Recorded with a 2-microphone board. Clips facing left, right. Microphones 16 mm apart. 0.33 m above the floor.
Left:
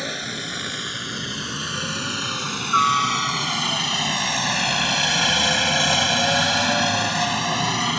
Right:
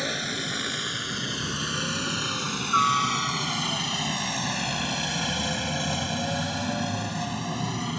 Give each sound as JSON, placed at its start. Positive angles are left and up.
{"t": 0.0, "sound": "a helicopter", "side_deg": 0}